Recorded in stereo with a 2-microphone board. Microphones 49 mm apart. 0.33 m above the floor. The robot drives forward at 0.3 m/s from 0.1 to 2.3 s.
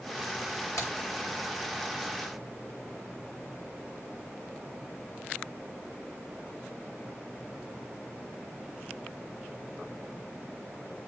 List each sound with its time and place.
0.8 s a crack: 65° left (ahead or behind), 5.5 m